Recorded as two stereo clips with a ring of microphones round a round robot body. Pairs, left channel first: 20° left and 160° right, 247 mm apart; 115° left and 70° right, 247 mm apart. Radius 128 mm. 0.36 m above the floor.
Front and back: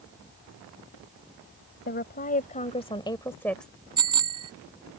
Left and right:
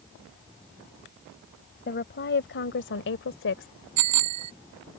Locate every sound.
1.9 s a woman speaking: 70° left; by 3.9 s 115° left
4.0 s a bicycle bell: 85° right